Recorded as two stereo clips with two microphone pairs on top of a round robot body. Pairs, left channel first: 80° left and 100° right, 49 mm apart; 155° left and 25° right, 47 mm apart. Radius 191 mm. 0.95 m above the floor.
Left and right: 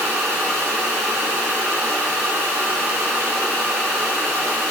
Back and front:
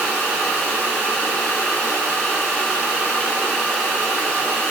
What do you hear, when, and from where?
Only background noise.